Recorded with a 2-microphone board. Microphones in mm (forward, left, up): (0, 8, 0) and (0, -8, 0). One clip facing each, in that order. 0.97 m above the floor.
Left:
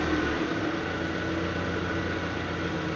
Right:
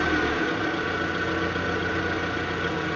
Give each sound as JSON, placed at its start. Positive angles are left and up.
{"t": 0.0, "sound": "an engine running", "side_deg": -70, "distance_m": 3.0}